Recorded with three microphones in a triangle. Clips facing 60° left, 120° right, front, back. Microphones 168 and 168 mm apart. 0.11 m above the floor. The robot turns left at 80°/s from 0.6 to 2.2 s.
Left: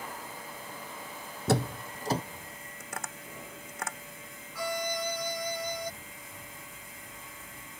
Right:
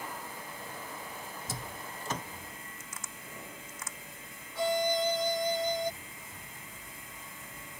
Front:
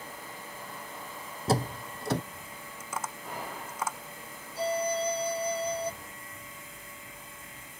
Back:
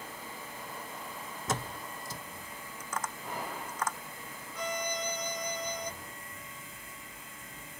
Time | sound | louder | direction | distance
1.5 | a door slam | left 19 dB, front 8 dB | 55° left | ?
2.8 | tapping | left 6 dB, even | 80° left | ?
4.5 | a violin | right 5 dB, front 7 dB | 55° right | ?